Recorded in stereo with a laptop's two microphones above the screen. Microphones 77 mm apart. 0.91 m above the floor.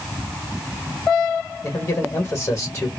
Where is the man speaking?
35° left (ahead or behind), 1.4 m.